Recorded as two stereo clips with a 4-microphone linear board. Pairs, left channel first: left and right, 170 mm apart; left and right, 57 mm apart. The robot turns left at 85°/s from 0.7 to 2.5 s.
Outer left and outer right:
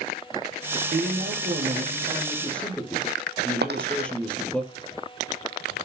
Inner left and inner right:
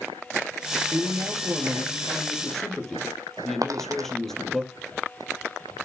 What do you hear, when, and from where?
0.9 s a man speaking: 50° right, 3 m; by 4.6 s 175° left, 3 m
3.6 s a dropped coin: 80° right, 1.2 m